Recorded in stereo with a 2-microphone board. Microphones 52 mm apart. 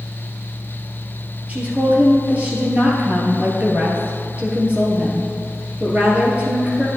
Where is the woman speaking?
30° right (ahead or behind), 1.8 m.